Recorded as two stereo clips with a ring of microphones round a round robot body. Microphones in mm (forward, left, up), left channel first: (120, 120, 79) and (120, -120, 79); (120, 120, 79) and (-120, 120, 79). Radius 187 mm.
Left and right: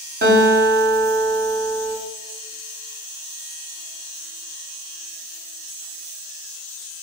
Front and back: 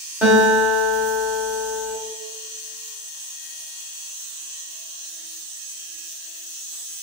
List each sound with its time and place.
0.2 s a guitar: 100° right, 1.0 m